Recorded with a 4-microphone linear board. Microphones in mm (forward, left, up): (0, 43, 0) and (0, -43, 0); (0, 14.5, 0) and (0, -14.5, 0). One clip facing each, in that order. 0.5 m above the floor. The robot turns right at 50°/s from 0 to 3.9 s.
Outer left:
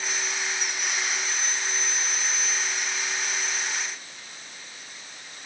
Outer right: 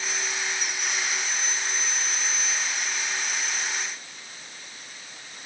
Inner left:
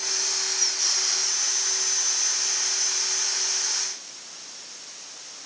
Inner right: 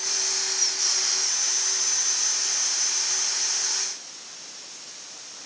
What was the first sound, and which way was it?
Only background noise.